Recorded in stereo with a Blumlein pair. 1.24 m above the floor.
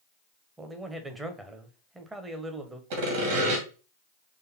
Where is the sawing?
55° right, 2 m.